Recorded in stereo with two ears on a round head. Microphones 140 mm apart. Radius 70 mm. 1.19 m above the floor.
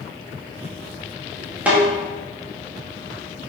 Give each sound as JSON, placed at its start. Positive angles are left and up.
{"t": 1.7, "sound": "a snare drum", "side_deg": -10, "distance_m": 1.8}